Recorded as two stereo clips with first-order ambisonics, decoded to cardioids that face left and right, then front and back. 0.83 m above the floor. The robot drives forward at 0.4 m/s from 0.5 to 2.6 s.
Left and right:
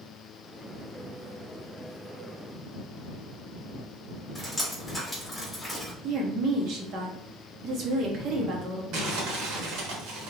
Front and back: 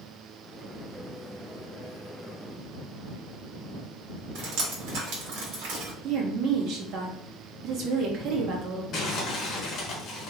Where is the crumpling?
60° right, 1.7 m.